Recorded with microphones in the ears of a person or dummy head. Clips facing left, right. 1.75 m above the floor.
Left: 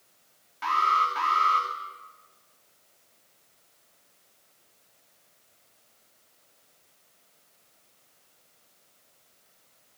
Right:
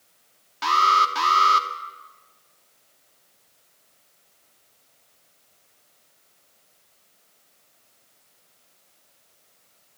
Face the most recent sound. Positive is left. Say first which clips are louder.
# right 5 dB
turn(degrees=-60)  # may be behind; listen again after turning